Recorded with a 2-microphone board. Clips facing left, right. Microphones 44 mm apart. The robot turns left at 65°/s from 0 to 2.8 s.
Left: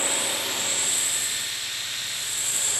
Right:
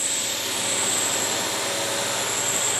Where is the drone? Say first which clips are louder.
Left 2 dB; 30° left; by 2.8 s 155° right.